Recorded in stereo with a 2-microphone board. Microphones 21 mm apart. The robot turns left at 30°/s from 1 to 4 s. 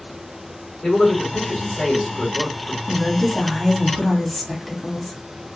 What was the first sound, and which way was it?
A man speaking, 140° left.